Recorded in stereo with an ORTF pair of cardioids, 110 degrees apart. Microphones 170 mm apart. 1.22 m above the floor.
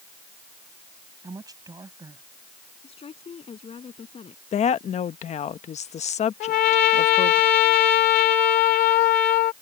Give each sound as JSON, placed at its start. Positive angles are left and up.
{"t": 1.2, "sound": "a woman speaking", "azimuth_deg": -20}
{"t": 2.8, "sound": "a woman speaking", "azimuth_deg": 35}
{"t": 4.5, "sound": "a woman speaking", "azimuth_deg": 40}
{"t": 6.4, "sound": "a trumpet", "azimuth_deg": 70}